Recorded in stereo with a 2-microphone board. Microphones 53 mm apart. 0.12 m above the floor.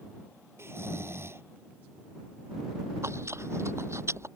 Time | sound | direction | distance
0.6 | snoring | 55° right (ahead or behind) | ?
3.0 | chewing | 60° right (ahead or behind) | ?